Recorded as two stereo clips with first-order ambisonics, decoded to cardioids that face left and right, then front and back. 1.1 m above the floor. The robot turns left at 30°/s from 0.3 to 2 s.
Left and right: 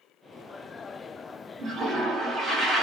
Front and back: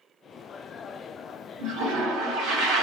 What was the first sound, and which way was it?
A toilet flushing, 165° right.